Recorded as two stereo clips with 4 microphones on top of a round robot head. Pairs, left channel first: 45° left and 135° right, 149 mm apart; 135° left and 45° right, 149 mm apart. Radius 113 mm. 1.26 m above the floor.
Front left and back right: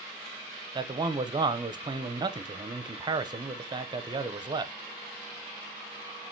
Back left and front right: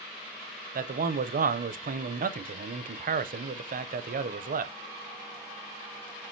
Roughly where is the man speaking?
Right.